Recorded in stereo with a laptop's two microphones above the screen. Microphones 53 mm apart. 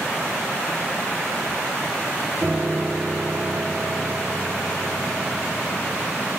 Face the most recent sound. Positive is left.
turn(degrees=-40)  # may be behind; listen again after turning